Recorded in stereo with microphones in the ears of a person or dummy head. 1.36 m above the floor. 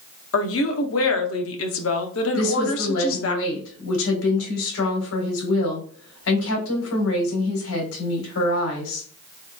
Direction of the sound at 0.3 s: 70° left (ahead or behind).